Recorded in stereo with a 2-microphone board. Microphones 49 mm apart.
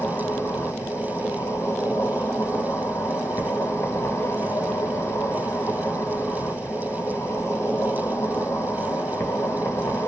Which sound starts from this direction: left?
An insect, at 0.0 s.